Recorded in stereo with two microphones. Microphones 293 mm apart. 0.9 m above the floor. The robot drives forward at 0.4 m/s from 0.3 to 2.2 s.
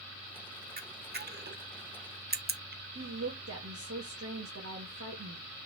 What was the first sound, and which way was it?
A camera shutter, 30° right (ahead or behind).